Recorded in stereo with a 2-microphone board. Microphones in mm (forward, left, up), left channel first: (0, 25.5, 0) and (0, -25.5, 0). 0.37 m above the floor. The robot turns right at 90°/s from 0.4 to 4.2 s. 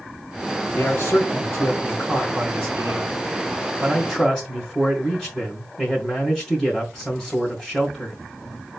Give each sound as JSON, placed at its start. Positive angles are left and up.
{"t": 0.8, "sound": "a man speaking", "azimuth_deg": 60, "distance_m": 2.5}